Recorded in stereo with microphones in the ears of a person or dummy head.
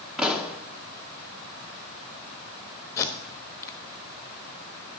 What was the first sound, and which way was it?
A pop, centre (ahead or behind).